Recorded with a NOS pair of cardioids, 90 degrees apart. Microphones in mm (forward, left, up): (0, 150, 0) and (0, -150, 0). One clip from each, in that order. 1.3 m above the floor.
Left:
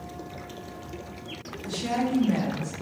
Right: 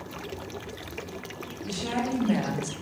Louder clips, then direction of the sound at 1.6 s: Left 2 dB; 5° left.